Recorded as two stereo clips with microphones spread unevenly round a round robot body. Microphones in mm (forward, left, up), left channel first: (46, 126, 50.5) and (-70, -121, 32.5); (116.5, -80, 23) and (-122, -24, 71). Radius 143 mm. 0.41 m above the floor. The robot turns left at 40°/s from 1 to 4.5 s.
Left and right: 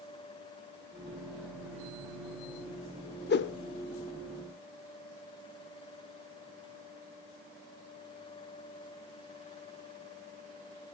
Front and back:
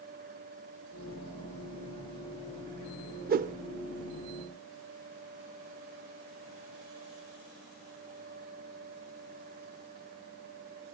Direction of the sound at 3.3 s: 110° left.